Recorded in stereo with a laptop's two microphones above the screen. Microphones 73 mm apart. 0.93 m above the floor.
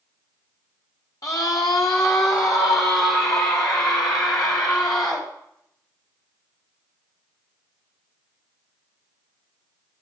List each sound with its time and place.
1.2 s a scream: 50° left (ahead or behind), 1.5 m; by 5.3 s 80° left, 4 m